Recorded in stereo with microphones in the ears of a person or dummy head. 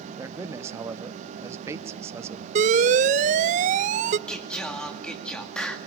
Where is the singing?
10° left (ahead or behind), 2 m.